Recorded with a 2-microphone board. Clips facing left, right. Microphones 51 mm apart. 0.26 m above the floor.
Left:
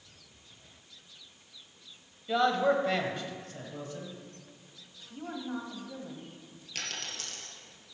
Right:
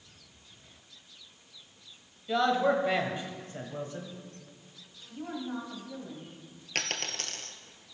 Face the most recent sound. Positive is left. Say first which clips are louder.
# right 5 dB
turn(degrees=-55)  # may be behind; listen again after turning